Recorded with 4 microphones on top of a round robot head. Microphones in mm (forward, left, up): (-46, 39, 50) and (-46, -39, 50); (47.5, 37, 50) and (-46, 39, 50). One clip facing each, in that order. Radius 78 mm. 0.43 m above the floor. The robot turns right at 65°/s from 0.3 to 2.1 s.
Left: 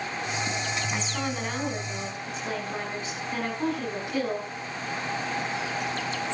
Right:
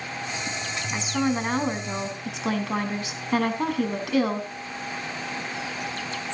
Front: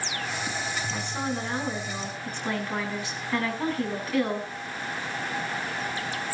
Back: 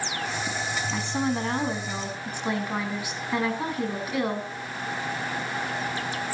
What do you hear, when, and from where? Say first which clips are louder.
0.9 s a woman speaking: right 5 dB, back 6 dB; straight behind, 4 m; by 4.5 s 100° right, 4 m